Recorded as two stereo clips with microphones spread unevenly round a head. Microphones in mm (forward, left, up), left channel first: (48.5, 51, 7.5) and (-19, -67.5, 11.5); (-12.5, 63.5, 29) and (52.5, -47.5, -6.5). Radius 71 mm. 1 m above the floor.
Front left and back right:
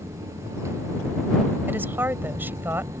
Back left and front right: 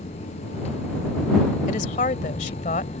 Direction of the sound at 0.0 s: 170° left.